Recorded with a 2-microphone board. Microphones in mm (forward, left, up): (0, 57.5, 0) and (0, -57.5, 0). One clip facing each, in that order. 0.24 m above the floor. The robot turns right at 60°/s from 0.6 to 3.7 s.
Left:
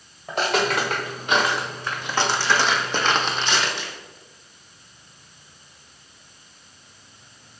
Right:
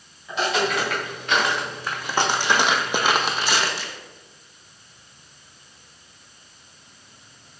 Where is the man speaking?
No man speaking in this recording.